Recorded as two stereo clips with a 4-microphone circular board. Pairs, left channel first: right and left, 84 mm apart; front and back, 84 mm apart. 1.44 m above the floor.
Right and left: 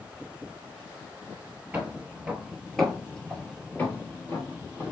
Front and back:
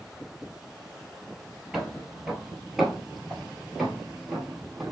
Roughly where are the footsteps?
Left.